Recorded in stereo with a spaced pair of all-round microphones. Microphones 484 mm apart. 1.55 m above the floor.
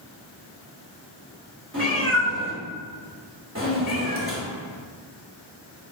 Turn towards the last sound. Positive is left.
turn(degrees=-25)  # may be behind; listen again after turning